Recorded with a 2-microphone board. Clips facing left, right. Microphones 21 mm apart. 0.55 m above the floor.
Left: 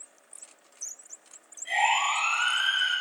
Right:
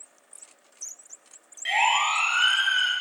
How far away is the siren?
About 5 m.